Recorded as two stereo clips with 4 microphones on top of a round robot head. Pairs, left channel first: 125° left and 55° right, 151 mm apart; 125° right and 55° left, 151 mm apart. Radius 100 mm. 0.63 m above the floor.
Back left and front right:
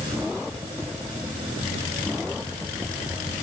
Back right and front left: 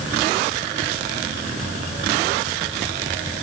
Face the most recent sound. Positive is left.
No sound to turn to.